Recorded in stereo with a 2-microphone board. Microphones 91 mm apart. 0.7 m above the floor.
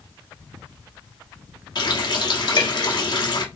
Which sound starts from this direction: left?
A running tap, at 1.8 s.